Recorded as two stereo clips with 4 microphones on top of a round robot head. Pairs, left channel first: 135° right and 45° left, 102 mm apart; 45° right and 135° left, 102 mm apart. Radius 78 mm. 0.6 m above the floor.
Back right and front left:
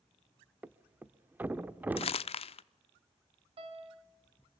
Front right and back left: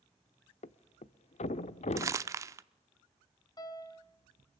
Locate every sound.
0.6 s a thud: 30° right, 0.7 m
2.0 s crumpling: 160° right, 0.6 m
3.6 s a piano: 10° left, 2.5 m